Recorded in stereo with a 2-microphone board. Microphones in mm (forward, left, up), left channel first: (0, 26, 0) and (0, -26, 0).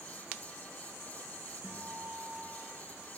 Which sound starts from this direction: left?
A guitar, at 1.6 s.